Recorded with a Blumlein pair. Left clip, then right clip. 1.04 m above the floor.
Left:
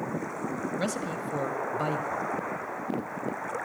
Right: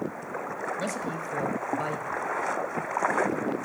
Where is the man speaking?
10° left, 1.4 m.